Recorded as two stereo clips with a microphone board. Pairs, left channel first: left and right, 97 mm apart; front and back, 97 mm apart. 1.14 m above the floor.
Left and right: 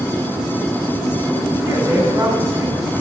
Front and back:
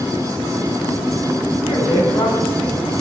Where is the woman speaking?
25° right, 3.5 m.